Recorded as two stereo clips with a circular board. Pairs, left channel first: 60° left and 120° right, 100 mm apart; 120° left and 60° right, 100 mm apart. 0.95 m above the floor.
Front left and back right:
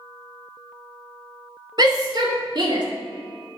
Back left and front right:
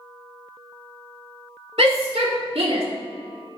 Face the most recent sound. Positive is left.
turn(degrees=-80)